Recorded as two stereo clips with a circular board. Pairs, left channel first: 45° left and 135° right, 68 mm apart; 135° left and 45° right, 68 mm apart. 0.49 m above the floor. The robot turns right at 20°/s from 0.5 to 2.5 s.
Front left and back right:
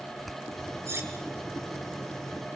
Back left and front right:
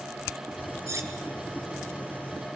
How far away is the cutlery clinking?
About 2 m.